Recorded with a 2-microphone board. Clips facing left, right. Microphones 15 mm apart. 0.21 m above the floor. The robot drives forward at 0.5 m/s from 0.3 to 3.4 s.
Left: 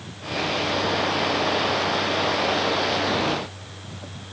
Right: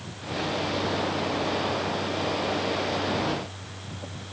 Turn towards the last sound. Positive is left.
No sound to turn to.